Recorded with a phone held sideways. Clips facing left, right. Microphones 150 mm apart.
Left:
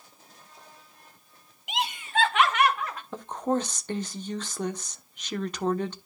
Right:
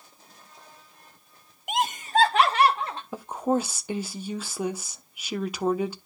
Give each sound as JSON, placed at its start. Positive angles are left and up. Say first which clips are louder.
{"t": 1.7, "sound": "laughter", "louder": "right 5 dB", "side_deg": -50, "distance_m": 0.6}
{"t": 3.1, "sound": "a woman speaking", "louder": "right 2 dB", "side_deg": -10, "distance_m": 1.0}